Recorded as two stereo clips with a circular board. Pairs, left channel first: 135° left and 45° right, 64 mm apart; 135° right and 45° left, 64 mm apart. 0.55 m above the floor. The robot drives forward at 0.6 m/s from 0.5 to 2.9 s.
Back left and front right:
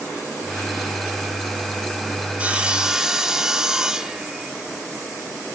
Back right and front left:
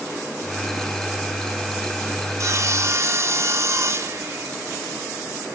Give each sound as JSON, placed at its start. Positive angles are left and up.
{"t": 2.4, "sound": "sawing", "azimuth_deg": 20, "distance_m": 0.9}